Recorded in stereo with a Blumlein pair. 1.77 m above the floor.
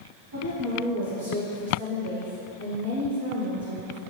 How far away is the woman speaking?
About 1.9 m.